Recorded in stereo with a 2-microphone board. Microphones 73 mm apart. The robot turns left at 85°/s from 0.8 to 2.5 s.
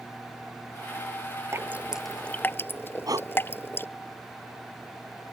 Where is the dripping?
35° right (ahead or behind); by 3.9 s 30° left (ahead or behind).